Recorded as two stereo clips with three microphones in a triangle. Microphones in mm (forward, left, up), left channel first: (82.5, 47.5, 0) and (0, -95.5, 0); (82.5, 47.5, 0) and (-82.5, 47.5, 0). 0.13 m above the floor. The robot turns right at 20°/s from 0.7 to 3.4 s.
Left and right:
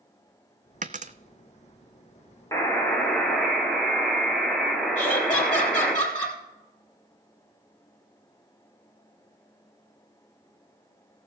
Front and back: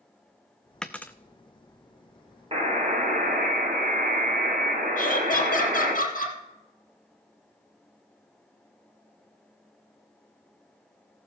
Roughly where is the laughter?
Ahead.